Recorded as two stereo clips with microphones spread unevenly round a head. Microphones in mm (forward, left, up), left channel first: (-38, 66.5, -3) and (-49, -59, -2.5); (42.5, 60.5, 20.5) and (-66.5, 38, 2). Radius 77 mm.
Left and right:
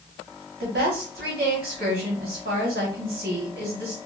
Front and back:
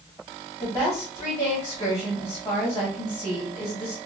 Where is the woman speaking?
60° right, 1.9 m.